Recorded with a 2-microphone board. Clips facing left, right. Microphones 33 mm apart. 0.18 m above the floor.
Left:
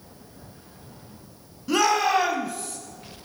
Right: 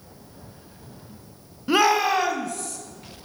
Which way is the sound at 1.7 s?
20° right (ahead or behind).